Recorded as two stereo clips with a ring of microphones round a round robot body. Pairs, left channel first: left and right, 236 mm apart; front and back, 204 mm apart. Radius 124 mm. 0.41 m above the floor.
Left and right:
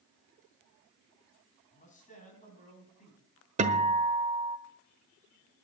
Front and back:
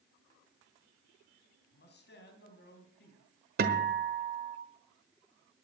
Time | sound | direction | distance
1.7 | a man speaking | 30° left | 4 m
3.6 | a guitar | 145° right | 1.3 m